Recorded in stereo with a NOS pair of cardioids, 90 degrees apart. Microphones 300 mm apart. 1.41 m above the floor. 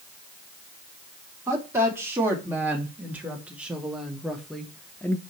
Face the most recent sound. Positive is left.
turn(degrees=10)